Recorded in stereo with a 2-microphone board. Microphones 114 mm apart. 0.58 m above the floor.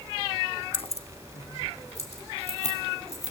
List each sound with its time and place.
0.7 s keys jangling: 50° left (ahead or behind), 0.5 m; by 3.3 s 75° left (ahead or behind), 4.5 m